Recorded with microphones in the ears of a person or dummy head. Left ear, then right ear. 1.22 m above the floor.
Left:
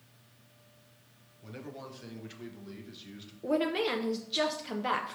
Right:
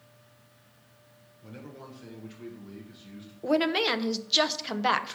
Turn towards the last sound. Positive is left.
turn(degrees=-30)  # may be behind; listen again after turning